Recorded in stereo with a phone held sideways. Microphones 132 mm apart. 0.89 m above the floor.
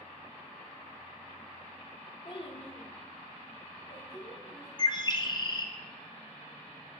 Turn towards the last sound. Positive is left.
turn(degrees=35)  # may be behind; listen again after turning